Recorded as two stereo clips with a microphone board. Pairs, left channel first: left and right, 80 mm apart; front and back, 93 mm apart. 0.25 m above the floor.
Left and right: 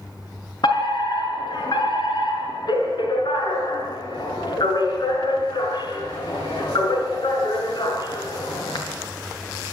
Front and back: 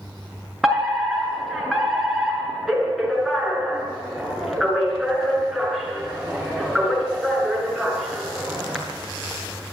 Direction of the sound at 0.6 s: 90° left.